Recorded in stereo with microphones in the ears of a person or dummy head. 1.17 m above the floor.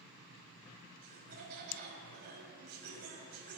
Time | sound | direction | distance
1.0 | laughter | 50° right (ahead or behind) | 8 m